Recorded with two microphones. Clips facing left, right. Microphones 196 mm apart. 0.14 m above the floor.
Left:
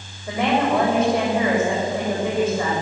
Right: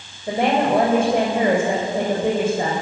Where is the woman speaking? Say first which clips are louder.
Right 2 dB; 30° right (ahead or behind), 8.5 m.